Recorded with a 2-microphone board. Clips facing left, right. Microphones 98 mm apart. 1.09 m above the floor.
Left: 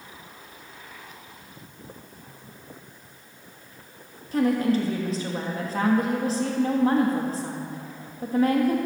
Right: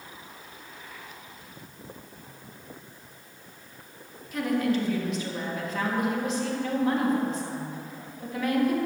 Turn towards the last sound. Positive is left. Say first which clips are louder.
# left 4 dB
turn(degrees=35)  # may be behind; listen again after turning